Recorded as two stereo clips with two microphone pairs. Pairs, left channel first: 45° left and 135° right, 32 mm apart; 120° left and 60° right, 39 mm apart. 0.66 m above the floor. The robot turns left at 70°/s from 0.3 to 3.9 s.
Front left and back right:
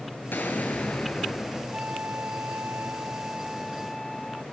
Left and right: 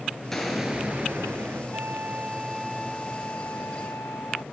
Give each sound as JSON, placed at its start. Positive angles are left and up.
{"t": 0.3, "sound": "an explosion", "azimuth_deg": 40, "distance_m": 6.5}
{"t": 1.7, "sound": "a flute", "azimuth_deg": -75, "distance_m": 0.5}